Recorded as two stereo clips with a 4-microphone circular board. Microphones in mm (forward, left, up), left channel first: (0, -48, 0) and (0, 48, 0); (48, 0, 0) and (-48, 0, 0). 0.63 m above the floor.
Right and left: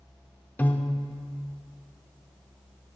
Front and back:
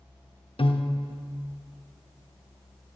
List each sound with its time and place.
0.6 s a piano: 20° right, 0.6 m